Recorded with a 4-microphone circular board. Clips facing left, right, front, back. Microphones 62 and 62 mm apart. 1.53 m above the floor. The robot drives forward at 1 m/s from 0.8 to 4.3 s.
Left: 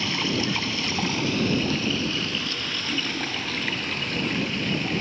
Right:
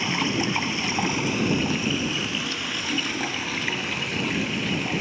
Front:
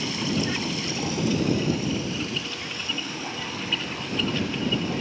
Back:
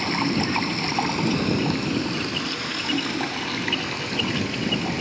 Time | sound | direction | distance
0.0 | running water | 160° right | 2.5 m